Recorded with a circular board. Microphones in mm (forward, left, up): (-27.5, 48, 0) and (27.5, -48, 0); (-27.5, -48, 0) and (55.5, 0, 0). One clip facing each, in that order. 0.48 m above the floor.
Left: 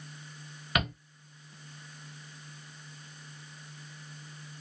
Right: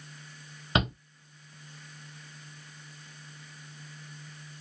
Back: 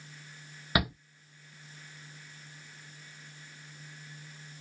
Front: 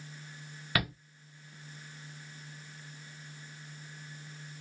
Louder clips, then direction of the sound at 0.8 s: Right 3 dB, back 3 dB; 95° right.